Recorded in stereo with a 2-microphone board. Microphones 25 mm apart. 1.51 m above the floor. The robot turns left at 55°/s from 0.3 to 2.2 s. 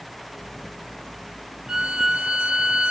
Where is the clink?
I don't hear a clink.